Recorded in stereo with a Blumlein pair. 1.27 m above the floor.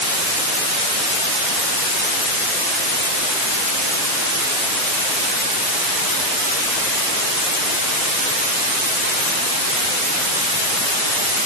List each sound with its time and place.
Only background noise.